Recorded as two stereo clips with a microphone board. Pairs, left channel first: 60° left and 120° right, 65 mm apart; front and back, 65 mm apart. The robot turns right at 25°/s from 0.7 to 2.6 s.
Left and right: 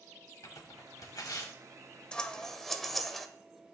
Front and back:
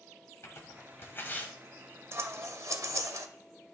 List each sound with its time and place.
0.4 s tearing paper: 40° left, 1.2 m; by 1.5 s 60° left, 1.2 m
2.1 s scissors: 135° left, 0.5 m; by 3.3 s 150° left, 0.5 m